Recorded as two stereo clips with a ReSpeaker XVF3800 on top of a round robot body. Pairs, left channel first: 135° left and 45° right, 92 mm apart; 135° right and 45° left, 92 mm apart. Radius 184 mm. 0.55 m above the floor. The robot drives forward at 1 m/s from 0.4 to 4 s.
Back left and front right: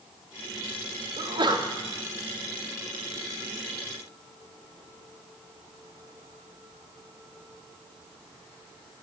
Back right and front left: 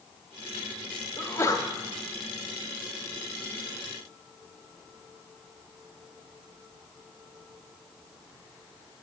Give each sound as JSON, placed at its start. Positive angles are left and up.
{"t": 1.2, "sound": "a sneeze", "azimuth_deg": -65, "distance_m": 1.4}